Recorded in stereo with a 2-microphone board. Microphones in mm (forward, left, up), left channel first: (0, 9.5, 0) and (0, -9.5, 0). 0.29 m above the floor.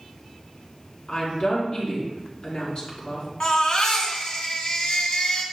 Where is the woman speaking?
55° left (ahead or behind), 4 m.